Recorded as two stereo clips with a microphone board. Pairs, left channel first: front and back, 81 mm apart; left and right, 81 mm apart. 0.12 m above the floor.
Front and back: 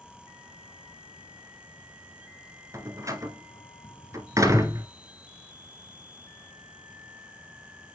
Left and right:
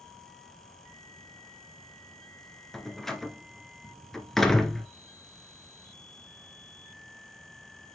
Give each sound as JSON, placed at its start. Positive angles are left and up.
{"t": 2.7, "sound": "a door slam", "azimuth_deg": 175, "distance_m": 1.2}